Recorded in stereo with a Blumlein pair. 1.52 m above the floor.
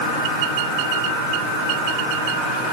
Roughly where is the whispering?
I don't hear whispering.